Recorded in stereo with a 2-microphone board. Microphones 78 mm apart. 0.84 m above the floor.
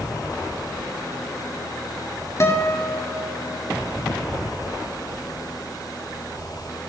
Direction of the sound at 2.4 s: 35° left (ahead or behind).